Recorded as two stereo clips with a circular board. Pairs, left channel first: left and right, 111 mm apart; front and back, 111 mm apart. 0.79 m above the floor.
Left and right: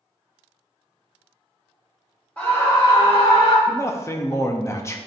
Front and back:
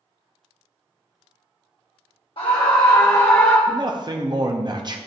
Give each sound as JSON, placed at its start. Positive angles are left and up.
{"t": 2.4, "sound": "a scream", "azimuth_deg": 15, "distance_m": 1.2}
{"t": 3.7, "sound": "a man speaking", "azimuth_deg": 145, "distance_m": 0.7}